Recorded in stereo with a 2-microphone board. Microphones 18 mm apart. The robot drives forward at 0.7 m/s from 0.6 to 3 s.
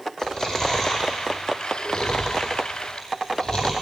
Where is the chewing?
45° left (ahead or behind), 5 m; by 3.7 s 60° left (ahead or behind), 4 m.